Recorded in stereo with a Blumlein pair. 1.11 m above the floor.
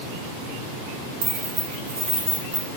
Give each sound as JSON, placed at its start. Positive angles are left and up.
{"t": 1.2, "sound": "keys jangling", "azimuth_deg": -45, "distance_m": 0.7}